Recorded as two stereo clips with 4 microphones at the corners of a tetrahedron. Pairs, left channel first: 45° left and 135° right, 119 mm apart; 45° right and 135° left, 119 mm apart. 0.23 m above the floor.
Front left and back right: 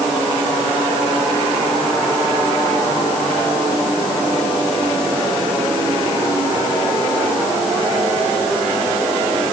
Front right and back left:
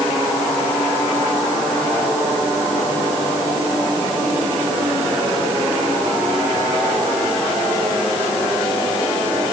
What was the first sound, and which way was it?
Only background noise.